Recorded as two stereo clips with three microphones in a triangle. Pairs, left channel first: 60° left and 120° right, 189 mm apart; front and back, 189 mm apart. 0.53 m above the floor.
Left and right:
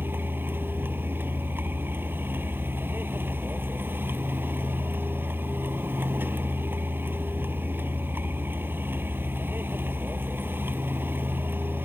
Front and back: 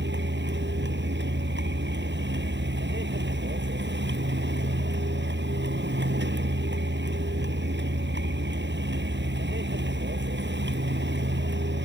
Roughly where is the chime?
No chime in this recording.